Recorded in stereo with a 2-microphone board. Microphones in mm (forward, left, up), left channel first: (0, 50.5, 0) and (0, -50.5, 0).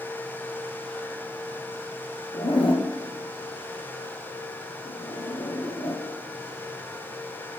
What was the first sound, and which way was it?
A zipper, 55° left (ahead or behind).